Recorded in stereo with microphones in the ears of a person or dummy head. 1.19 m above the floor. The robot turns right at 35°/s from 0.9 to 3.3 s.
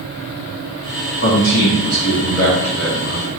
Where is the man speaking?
115° left, 1.1 m; by 3.3 s 170° right, 1.1 m.